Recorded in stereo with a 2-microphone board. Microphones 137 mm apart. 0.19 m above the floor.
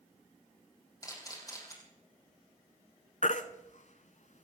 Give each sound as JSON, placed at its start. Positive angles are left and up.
{"t": 1.0, "sound": "a camera shutter", "side_deg": 25, "distance_m": 5.0}
{"t": 3.2, "sound": "a baby crying", "side_deg": 60, "distance_m": 0.9}